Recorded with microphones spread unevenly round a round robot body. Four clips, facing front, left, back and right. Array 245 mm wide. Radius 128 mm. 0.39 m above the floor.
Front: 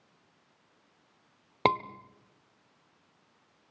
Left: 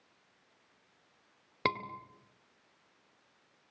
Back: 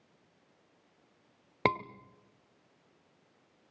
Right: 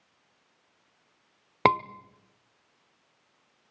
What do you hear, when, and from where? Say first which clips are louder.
1.6 s a scream: right 11 dB, front 4 dB; 75° right, 1.2 m